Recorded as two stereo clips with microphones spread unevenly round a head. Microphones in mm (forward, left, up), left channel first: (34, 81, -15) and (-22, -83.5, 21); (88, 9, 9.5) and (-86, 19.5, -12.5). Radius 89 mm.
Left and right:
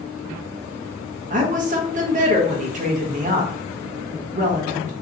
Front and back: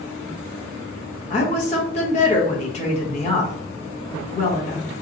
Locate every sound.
1.3 s a woman speaking: 60° right, 1.0 m